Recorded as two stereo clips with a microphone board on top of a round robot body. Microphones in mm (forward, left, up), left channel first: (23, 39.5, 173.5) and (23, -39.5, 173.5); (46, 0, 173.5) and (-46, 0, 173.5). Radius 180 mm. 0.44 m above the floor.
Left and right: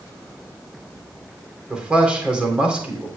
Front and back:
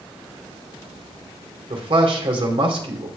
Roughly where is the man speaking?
Behind.